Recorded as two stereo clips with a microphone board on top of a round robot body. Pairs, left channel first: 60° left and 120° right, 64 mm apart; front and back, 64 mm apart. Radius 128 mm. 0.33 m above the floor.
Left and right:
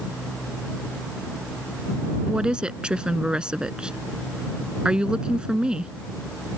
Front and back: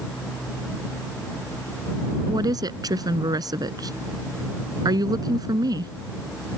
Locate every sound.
2.3 s a woman speaking: 165° left